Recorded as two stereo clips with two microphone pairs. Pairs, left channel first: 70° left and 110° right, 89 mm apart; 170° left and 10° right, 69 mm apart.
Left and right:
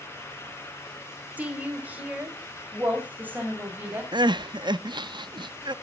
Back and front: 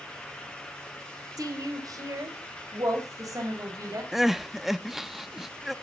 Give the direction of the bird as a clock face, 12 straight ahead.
No bird in this recording.